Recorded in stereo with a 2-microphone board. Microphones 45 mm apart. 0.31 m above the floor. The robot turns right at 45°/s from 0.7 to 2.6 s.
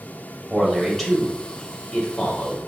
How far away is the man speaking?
About 1.1 m.